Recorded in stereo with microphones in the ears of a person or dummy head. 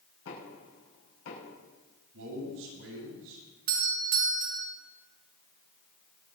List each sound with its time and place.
0.2 s knocking: 85° left, 5.5 m
2.1 s a man speaking: 75° right (ahead or behind), 8.5 m
3.7 s a doorbell: 50° right (ahead or behind), 2 m